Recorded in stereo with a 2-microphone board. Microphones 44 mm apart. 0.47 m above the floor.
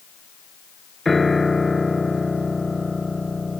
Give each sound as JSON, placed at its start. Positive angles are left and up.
{"t": 1.1, "sound": "a piano", "side_deg": 0}